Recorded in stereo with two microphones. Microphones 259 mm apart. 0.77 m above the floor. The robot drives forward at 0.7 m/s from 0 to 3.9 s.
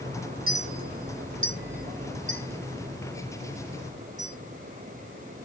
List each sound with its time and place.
0.5 s a clink: 55° right (ahead or behind), 0.7 m; by 4.3 s 15° right (ahead or behind), 2 m